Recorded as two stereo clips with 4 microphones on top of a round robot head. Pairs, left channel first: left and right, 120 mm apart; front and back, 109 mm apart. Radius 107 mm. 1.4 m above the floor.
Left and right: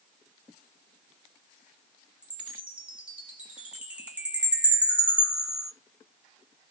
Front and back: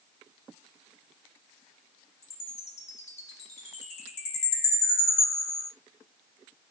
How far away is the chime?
About 0.7 m.